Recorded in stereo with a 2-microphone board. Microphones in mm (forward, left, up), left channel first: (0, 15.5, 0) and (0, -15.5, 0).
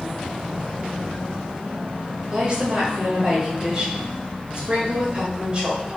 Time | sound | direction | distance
2.3 | a woman speaking | 40° right (ahead or behind) | 1.2 m